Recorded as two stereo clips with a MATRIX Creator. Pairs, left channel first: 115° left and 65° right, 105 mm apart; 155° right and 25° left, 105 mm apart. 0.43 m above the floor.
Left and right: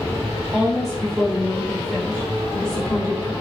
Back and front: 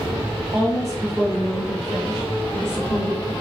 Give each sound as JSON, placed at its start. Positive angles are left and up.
{"t": 0.5, "sound": "a woman speaking", "azimuth_deg": 25, "distance_m": 1.4}